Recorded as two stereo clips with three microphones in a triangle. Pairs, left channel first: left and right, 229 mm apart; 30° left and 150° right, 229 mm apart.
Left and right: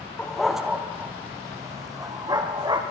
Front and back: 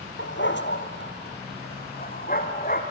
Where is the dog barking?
5° left, 1.5 m; by 2.8 s 20° right, 4 m.